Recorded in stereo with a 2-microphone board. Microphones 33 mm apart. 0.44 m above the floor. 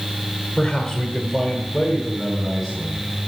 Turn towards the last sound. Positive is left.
turn(degrees=-5)  # may be behind; listen again after turning